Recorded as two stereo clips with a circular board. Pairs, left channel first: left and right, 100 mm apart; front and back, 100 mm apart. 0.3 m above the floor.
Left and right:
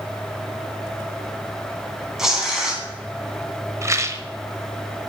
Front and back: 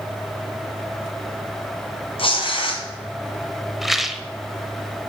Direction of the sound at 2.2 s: 5° right.